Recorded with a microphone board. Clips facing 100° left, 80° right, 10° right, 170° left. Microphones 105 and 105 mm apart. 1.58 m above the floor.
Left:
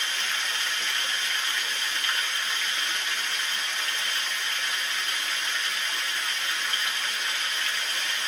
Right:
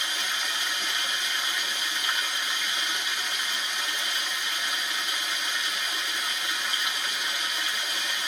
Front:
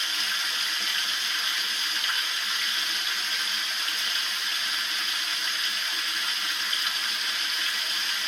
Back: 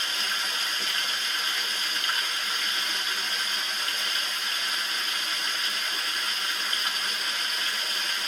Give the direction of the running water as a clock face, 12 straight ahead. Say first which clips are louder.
Even, back 1 dB; 5 o'clock.